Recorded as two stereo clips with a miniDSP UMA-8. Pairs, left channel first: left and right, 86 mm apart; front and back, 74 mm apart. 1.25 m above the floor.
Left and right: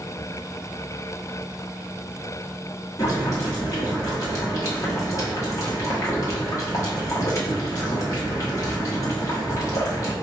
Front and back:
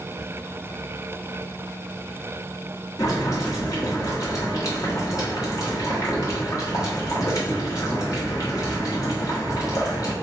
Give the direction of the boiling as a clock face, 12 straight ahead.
11 o'clock.